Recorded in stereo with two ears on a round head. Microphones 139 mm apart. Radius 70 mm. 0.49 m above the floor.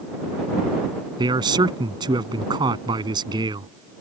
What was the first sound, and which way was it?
A man speaking, 30° right (ahead or behind).